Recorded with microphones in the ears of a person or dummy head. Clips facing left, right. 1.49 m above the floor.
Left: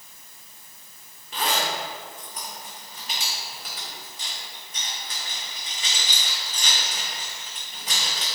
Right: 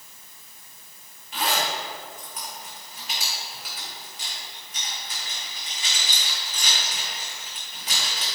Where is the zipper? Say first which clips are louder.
Even; 40° left (ahead or behind), 1.9 m.